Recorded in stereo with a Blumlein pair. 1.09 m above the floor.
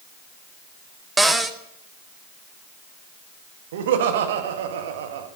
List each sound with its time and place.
1.2 s a cupboard door: 5° right, 0.8 m
3.7 s laughter: 55° right, 1.5 m